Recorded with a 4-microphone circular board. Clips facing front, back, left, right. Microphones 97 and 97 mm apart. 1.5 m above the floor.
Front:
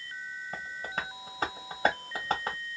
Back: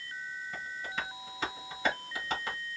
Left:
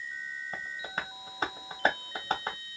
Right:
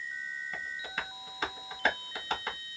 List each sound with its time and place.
0.5 s tapping: 40° left, 1.1 m